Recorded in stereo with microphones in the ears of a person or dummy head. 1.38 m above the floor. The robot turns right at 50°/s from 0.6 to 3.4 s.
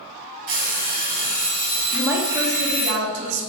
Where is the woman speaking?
175° right, 1.0 m; by 3.5 s 100° right, 1.0 m.